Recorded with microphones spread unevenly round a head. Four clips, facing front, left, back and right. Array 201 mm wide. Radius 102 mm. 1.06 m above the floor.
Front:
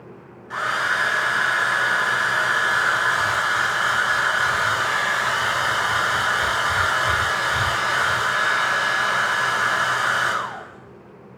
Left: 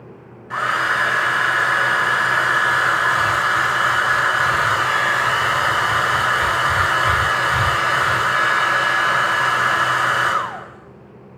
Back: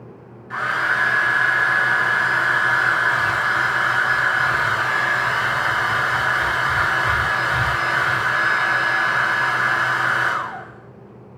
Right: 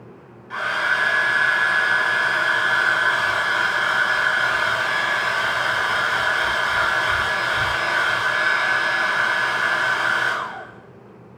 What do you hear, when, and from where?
0.5 s a hair dryer: 120° left, 4.5 m